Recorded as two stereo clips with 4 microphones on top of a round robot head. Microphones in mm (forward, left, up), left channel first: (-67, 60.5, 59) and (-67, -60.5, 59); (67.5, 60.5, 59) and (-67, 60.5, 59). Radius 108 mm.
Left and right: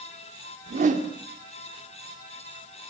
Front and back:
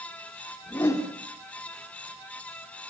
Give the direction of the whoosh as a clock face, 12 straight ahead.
2 o'clock.